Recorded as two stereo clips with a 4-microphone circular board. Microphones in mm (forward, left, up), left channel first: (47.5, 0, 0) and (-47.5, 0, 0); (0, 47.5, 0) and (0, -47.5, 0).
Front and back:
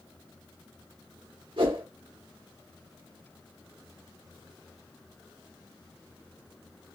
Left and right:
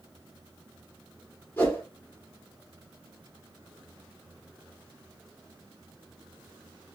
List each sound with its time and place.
1.6 s a whoosh: 160° left, 3 m